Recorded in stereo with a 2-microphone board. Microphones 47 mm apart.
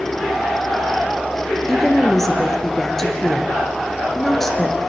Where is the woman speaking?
10° left (ahead or behind), 3 m.